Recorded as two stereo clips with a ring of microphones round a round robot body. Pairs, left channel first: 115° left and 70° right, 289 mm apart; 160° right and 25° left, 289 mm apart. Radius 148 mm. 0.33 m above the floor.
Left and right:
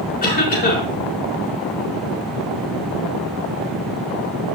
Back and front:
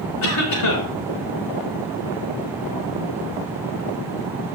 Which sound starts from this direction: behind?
A cough, at 0.2 s.